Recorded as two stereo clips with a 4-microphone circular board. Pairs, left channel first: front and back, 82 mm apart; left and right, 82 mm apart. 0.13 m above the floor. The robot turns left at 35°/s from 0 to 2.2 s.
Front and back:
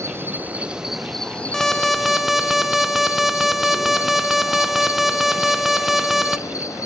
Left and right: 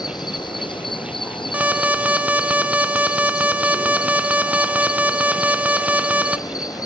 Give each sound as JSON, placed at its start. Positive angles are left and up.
{"t": 0.0, "sound": "an insect", "azimuth_deg": 125, "distance_m": 1.0}
{"t": 1.5, "sound": "an alarm", "azimuth_deg": -75, "distance_m": 0.7}